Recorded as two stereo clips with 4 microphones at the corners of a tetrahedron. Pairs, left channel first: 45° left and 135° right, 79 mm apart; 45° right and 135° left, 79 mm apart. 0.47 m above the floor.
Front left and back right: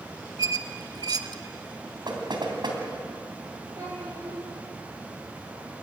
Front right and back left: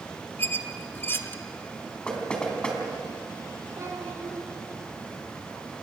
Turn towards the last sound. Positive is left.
turn(degrees=-175)